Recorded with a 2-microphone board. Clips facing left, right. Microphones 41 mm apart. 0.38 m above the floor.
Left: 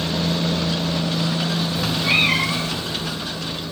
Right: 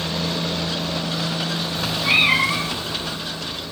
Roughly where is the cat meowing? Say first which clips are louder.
Right 2 dB; centre.